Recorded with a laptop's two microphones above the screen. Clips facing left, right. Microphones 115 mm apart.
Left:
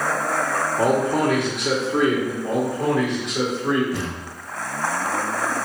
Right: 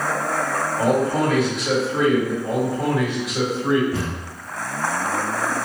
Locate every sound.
0.8 s a man speaking: 60° left (ahead or behind), 0.9 m
2.4 s a man speaking: 10° right (ahead or behind), 1.6 m
3.9 s a thud: 20° right (ahead or behind), 1.8 m